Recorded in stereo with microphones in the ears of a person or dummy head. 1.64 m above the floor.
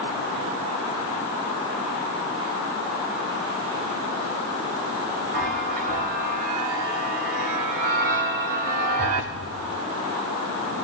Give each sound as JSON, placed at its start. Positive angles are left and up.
{"t": 5.3, "sound": "a chime", "side_deg": -50, "distance_m": 2.0}